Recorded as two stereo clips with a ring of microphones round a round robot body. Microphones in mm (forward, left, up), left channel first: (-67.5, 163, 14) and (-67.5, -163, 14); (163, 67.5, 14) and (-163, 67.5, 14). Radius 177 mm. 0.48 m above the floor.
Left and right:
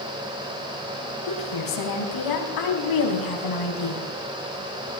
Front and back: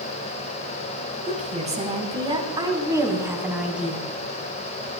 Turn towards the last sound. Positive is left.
turn(degrees=90)